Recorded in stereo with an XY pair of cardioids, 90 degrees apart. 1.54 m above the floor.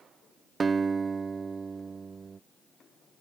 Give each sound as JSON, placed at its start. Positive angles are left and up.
{"t": 0.6, "sound": "a guitar", "azimuth_deg": -40}